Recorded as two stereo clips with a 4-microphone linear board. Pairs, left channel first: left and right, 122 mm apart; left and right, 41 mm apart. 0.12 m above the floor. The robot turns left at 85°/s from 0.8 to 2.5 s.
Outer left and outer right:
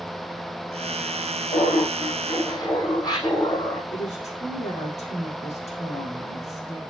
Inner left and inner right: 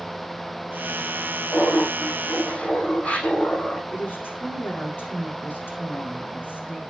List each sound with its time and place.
1.5 s laughter: 120° left, 5 m; by 3.8 s 35° left, 5 m
3.9 s a woman speaking: 70° left (ahead or behind), 5.5 m